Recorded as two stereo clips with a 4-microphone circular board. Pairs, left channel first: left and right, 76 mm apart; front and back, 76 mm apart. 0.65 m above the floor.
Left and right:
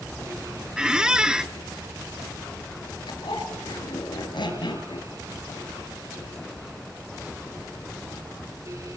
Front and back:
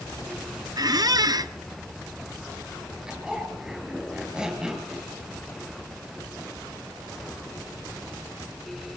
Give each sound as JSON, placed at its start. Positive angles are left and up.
{"t": 0.8, "sound": "a squeak", "azimuth_deg": -165, "distance_m": 0.6}
{"t": 3.1, "sound": "a zipper", "azimuth_deg": 100, "distance_m": 3.5}